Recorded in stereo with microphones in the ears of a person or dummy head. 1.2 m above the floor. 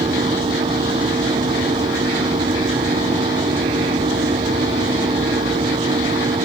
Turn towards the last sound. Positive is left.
turn(degrees=-25)  # may be behind; listen again after turning